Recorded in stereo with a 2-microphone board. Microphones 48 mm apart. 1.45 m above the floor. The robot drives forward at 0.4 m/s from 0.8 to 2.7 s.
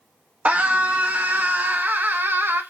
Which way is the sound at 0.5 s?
35° right (ahead or behind).